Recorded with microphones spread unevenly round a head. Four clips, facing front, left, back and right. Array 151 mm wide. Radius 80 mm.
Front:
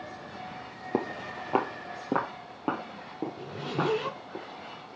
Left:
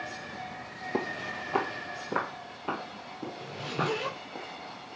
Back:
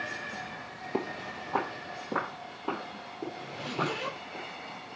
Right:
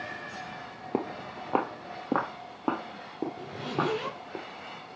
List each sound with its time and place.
0.9 s footsteps: 45° right, 1.1 m; by 4.4 s 65° right, 3.5 m
3.4 s a zipper: 30° right, 3 m